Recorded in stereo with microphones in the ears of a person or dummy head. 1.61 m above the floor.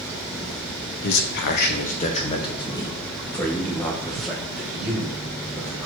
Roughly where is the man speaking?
Left.